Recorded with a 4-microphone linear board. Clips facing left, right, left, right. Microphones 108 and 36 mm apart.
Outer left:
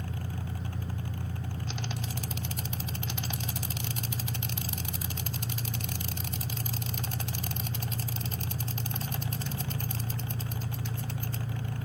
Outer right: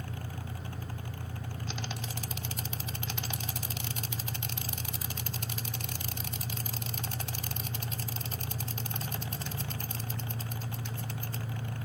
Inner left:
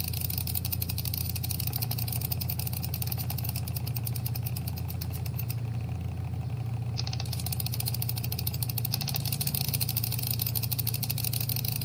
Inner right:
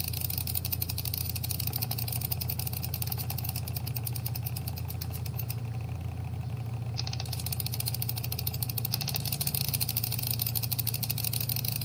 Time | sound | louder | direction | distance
0.0 | an engine running | outer left 3 dB, inner left 1 dB | 35° left (ahead or behind) | 2.5 m